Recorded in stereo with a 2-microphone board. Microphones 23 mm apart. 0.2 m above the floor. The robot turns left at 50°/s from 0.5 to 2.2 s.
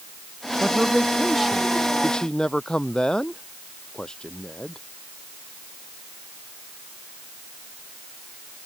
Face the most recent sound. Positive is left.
turn(degrees=140)